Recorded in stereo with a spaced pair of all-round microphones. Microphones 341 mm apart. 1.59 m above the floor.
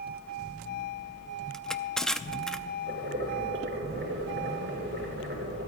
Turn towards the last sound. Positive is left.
turn(degrees=-35)  # may be behind; listen again after turning